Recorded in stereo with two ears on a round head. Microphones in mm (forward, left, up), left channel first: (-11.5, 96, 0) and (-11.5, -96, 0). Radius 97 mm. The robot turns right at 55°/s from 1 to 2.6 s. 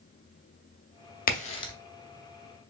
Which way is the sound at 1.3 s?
40° left (ahead or behind).